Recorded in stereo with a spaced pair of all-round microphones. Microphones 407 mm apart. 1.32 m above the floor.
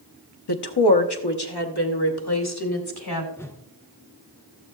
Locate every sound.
0.5 s a woman speaking: 70° left (ahead or behind), 0.9 m; by 3.3 s 65° left (ahead or behind), 2.5 m
3.4 s a whoosh: 5° left (ahead or behind), 0.7 m